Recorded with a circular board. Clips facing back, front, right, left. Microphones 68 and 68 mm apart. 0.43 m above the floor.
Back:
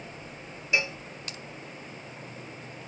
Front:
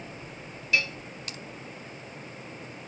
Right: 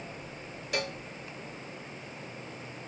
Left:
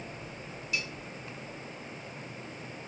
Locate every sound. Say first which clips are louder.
0.7 s a cowbell: even, right 4 dB; 115° right